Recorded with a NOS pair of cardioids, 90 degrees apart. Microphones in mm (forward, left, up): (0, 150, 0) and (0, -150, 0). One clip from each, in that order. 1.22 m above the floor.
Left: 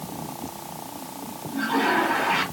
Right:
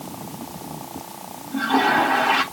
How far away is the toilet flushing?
About 3 m.